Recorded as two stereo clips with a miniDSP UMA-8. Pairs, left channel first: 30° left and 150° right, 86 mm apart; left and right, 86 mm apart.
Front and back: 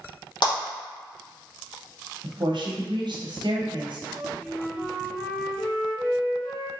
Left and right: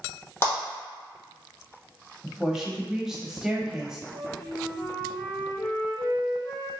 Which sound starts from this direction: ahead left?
A clap, at 0.4 s.